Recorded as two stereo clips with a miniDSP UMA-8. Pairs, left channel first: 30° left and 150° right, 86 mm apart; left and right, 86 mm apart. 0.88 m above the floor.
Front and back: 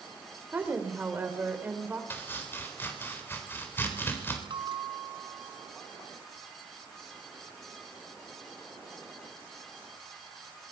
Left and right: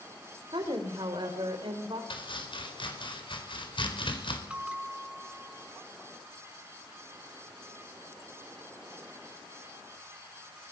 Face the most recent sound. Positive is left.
turn(degrees=-165)